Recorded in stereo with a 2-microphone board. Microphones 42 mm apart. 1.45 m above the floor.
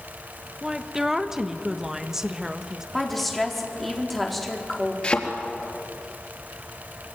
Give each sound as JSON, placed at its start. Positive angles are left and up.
{"t": 0.6, "sound": "a woman speaking", "side_deg": -10, "distance_m": 1.4}
{"t": 2.9, "sound": "a woman speaking", "side_deg": 5, "distance_m": 4.0}
{"t": 5.0, "sound": "a thud", "side_deg": 30, "distance_m": 3.5}